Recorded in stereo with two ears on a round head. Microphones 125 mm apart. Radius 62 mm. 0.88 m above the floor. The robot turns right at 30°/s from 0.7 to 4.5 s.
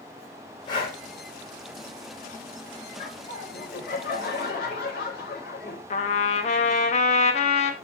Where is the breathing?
30° left (ahead or behind), 3 m; by 1.0 s 40° left (ahead or behind), 3 m.